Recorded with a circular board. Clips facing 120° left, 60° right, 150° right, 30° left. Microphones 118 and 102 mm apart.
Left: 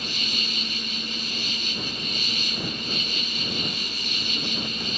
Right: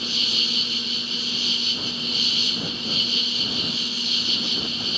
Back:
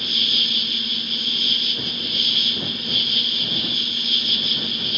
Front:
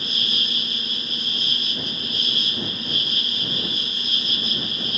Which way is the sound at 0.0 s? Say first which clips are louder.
Right 1 dB, back 1 dB; 85° left.